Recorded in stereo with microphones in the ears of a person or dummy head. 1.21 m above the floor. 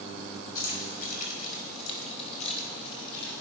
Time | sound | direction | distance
0.6 | keys jangling | 55° left (ahead or behind) | 4 m